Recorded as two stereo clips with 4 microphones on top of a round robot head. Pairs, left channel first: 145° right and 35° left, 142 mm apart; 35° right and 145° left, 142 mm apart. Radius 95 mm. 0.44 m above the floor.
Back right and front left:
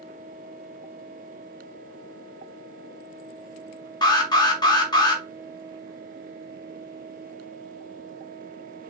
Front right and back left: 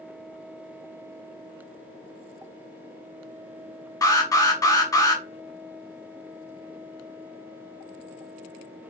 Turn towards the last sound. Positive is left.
turn(degrees=-95)